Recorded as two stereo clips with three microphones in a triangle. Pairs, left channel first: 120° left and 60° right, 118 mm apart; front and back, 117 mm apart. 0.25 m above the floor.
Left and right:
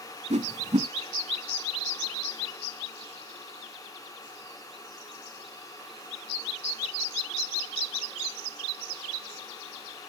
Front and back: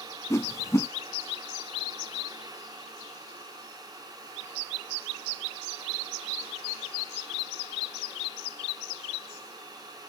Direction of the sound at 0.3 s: 65° right.